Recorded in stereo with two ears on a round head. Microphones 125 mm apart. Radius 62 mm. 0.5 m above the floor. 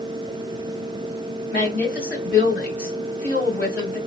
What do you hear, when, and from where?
1.5 s a woman speaking: 15° left (ahead or behind), 2 m